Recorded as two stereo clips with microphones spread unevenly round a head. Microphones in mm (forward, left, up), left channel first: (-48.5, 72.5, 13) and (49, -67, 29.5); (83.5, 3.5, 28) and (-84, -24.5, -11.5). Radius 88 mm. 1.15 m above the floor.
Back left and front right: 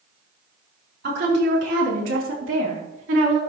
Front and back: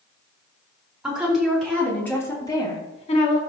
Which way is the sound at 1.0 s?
85° right.